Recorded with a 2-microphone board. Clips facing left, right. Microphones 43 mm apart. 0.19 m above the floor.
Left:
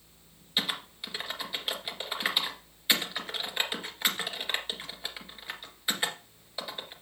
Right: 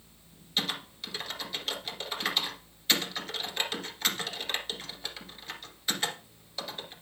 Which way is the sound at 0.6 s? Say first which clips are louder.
Left 1 dB; 20° left (ahead or behind).